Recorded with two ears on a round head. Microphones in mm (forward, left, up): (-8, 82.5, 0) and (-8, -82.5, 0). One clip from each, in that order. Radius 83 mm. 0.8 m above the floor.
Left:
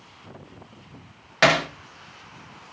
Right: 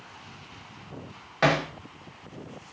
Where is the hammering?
70° left (ahead or behind), 1.5 m.